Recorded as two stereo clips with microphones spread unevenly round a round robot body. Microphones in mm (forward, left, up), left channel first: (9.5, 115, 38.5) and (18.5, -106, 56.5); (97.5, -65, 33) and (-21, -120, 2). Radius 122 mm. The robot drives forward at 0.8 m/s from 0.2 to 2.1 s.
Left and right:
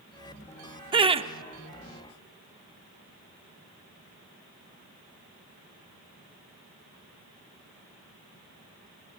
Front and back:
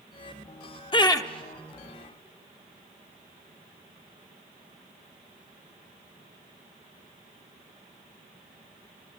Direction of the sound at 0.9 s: 25° right.